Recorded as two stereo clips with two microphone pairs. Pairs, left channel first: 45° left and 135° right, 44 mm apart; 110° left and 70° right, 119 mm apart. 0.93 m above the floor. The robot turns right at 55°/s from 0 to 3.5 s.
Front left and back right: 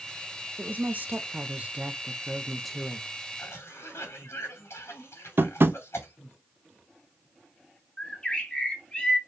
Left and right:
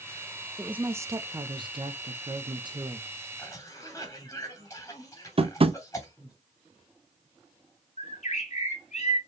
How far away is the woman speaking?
About 0.7 m.